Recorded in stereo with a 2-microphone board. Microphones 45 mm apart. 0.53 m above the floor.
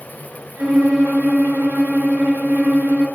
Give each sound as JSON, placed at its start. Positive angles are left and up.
{"t": 0.6, "sound": "a violin", "side_deg": -80, "distance_m": 4.5}